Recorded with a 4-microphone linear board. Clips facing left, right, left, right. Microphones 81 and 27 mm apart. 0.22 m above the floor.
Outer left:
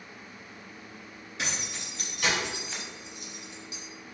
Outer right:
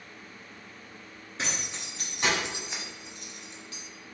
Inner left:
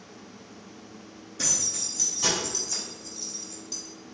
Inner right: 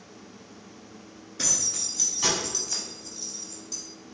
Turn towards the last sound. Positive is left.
turn(degrees=20)  # may be behind; listen again after turning